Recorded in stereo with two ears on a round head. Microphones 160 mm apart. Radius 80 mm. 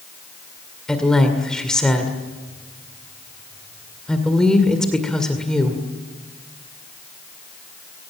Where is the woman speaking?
5° left (ahead or behind), 2 m.